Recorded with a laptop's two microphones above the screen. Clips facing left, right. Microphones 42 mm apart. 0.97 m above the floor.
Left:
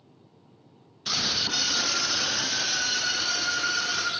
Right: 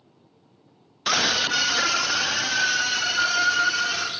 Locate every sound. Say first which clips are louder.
1.1 s a scream: right 7 dB; 70° right (ahead or behind), 0.8 m